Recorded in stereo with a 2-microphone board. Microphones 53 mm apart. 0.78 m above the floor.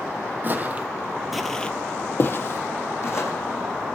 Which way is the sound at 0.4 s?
40° right (ahead or behind).